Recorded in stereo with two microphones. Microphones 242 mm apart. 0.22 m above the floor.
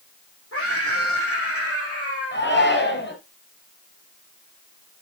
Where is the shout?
50° left (ahead or behind), 6 m.